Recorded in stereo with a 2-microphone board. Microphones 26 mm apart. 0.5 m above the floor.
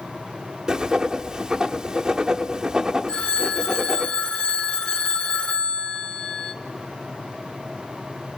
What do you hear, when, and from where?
0.7 s writing: 25° right (ahead or behind), 0.9 m
3.1 s a phone ringing: 30° left (ahead or behind), 1.1 m